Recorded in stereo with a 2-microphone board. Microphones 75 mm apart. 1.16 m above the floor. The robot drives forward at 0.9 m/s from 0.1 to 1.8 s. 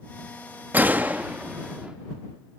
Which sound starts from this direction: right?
A gunshot, at 0.7 s.